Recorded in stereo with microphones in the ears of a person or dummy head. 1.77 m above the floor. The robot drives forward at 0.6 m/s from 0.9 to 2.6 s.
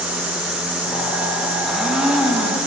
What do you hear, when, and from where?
1.7 s a blender: 10° left (ahead or behind), 0.6 m; by 2.7 s 5° left (ahead or behind), 1.1 m